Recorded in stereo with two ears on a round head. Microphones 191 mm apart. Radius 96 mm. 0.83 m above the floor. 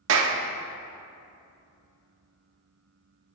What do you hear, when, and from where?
0.1 s a clap: 65° right (ahead or behind), 1.4 m